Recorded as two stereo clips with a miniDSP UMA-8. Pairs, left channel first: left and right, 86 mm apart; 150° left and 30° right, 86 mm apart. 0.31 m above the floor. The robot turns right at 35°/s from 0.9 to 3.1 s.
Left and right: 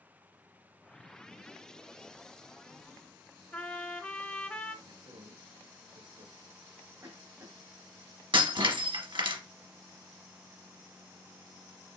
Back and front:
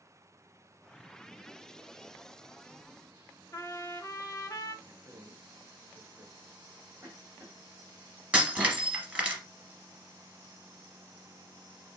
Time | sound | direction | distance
3.5 | a trumpet | 150° left | 0.9 m
4.8 | a man speaking | 95° right | 3.5 m
7.0 | a cough | 75° right | 1.8 m
8.3 | breaking glass | 105° right | 1.8 m